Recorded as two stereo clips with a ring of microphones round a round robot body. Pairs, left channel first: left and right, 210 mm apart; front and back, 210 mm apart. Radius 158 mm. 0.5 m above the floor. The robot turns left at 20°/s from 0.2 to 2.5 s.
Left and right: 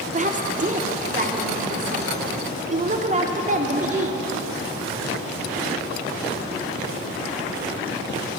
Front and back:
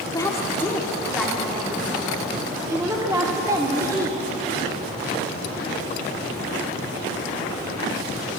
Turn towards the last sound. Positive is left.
turn(degrees=-115)